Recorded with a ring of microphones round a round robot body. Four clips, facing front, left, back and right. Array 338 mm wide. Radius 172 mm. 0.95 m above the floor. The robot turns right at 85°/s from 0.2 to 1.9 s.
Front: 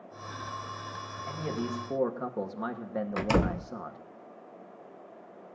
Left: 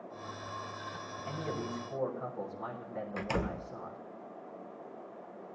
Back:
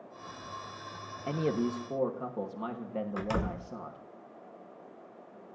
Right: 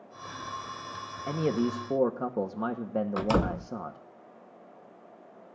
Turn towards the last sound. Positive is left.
turn(degrees=-40)